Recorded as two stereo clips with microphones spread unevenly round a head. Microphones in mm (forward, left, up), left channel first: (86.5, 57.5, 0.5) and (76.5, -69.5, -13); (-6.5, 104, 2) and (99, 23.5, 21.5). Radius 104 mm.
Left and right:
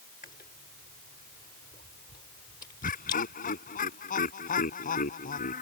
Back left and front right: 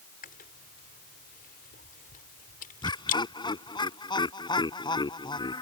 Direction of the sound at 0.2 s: 140° left.